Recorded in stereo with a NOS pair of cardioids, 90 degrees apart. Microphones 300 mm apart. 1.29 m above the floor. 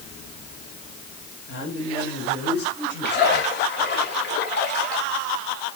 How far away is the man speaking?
About 4.5 m.